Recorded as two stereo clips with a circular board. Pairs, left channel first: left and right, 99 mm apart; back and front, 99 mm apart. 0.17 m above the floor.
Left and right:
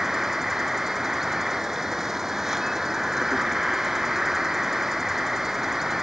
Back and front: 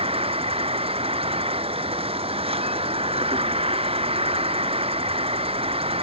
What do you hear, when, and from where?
0.0 s an insect: 5° right